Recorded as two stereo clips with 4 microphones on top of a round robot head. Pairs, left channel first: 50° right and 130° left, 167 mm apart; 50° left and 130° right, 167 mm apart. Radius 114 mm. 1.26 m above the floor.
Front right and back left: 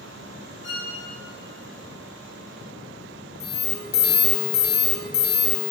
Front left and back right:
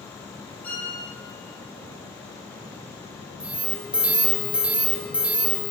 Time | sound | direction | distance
0.6 | a violin | 30° right | 1.7 m
3.4 | an alarm | 45° right | 1.0 m